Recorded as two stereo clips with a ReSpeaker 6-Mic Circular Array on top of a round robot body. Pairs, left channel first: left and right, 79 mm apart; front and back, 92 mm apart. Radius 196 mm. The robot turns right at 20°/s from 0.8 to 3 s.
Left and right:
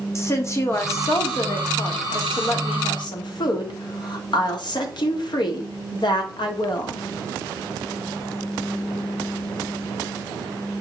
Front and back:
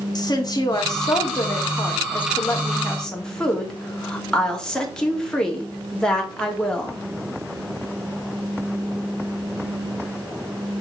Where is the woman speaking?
35° left, 2 m; by 7.0 s 80° left, 2 m.